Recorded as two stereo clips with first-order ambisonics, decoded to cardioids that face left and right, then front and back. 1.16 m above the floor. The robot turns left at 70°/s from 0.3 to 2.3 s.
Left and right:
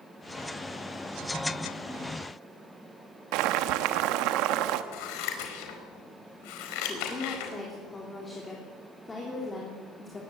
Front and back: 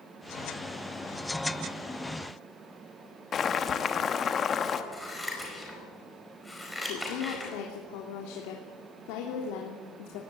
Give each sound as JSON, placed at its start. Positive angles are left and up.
{"t": 3.3, "sound": "boiling", "azimuth_deg": -65, "distance_m": 1.2}
{"t": 4.9, "sound": "scissors", "azimuth_deg": 85, "distance_m": 4.5}
{"t": 6.9, "sound": "a woman speaking", "azimuth_deg": 15, "distance_m": 3.0}